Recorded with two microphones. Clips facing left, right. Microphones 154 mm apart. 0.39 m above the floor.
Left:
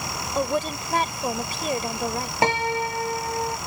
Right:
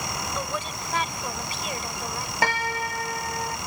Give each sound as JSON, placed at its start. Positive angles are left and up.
{"t": 0.3, "sound": "a woman speaking", "side_deg": 40}
{"t": 2.4, "sound": "a piano", "side_deg": 25}